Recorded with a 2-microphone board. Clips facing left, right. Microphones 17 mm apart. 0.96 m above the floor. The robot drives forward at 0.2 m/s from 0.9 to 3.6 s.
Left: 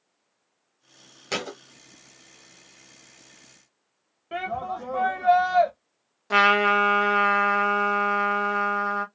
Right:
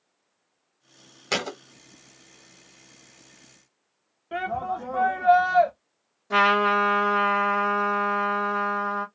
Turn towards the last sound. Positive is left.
turn(degrees=40)  # may be behind; listen again after turning